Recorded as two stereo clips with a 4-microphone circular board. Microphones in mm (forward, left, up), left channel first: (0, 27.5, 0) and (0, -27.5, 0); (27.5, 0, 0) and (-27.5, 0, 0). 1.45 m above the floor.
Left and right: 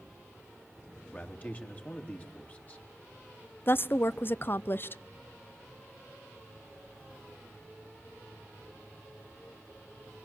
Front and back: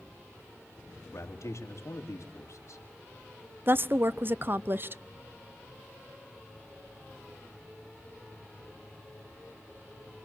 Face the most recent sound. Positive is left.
turn(degrees=135)